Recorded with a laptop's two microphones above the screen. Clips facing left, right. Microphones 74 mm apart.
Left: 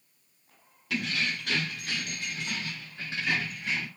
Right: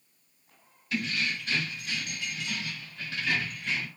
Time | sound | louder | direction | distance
0.9 | keys jangling | even | 85° left | 0.9 m